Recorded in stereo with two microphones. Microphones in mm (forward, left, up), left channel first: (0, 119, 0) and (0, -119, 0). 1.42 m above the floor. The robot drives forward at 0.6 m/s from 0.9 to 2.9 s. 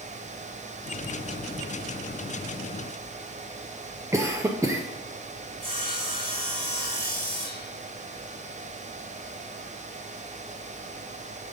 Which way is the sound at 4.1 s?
10° right (ahead or behind).